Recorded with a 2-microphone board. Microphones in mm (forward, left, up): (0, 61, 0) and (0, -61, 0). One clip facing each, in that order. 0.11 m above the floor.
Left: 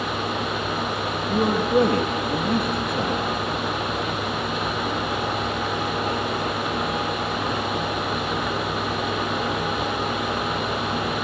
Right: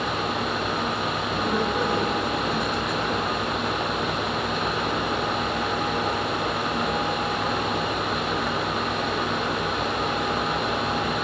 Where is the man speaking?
50° left (ahead or behind), 3 m.